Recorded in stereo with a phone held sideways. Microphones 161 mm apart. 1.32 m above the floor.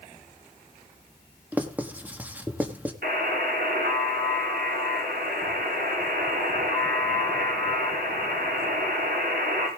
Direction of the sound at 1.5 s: 10° right (ahead or behind).